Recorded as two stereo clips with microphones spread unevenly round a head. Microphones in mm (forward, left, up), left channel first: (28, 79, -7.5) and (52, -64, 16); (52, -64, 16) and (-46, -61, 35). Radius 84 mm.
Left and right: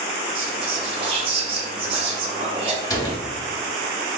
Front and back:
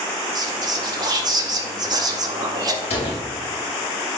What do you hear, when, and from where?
0.3 s whispering: 140° right, 2 m
2.8 s a door slam: 35° left, 2.5 m